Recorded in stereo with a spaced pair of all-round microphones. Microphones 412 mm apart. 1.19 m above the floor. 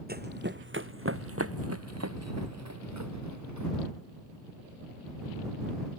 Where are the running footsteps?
20° right (ahead or behind); by 3.7 s 45° right (ahead or behind).